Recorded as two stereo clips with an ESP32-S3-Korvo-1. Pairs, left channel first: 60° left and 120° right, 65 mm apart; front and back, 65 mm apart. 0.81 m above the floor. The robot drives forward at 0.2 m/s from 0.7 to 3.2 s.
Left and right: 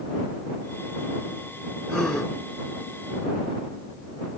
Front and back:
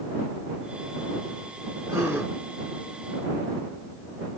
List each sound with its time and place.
1.9 s a gasp: 135° left, 1.4 m; by 2.3 s 140° left, 1.4 m